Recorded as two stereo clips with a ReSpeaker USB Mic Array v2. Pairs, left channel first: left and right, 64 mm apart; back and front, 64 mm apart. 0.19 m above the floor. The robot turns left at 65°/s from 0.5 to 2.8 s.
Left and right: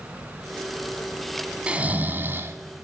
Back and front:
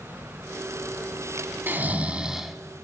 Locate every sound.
1.7 s snoring: 30° right, 0.7 m; by 2.5 s 90° right, 0.7 m